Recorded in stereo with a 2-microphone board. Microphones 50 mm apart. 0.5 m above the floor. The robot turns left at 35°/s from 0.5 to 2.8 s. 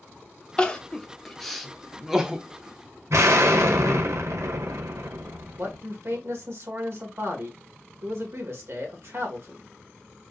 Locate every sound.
0.6 s crying: 15° left (ahead or behind), 0.6 m; by 2.4 s 15° right (ahead or behind), 0.6 m
3.1 s an explosion: 70° right (ahead or behind), 0.9 m
5.6 s a man speaking: 60° right (ahead or behind), 1.5 m